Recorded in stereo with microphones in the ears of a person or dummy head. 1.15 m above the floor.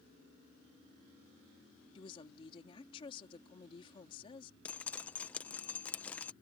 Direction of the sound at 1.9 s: 35° left (ahead or behind).